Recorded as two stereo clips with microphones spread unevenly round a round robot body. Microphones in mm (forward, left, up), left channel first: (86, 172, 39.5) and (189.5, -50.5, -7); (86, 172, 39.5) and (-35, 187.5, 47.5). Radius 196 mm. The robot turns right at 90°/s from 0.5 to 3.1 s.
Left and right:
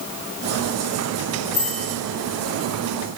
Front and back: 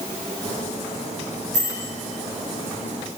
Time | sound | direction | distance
1.5 | a bicycle bell | 140° right | 5 m